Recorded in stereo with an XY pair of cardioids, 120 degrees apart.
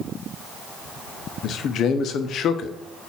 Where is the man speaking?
60° left, 0.6 m.